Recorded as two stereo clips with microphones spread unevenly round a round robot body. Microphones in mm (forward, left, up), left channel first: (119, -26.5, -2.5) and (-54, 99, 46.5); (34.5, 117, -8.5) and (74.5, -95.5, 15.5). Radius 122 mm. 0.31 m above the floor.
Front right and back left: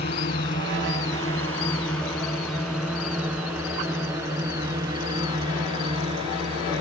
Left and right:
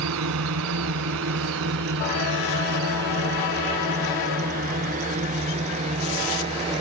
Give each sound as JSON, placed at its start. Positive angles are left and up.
{"t": 0.0, "sound": "a drone", "azimuth_deg": -90}